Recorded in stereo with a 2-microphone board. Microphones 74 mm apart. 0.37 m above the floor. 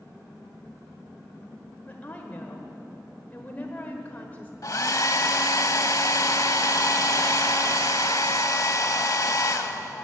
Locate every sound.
1.9 s a woman speaking: 20° left (ahead or behind), 1.5 m
4.6 s a hair dryer: 55° left (ahead or behind), 0.7 m